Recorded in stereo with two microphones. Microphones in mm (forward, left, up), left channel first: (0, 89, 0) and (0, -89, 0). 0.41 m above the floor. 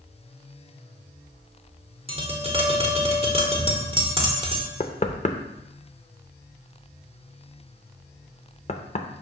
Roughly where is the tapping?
Right.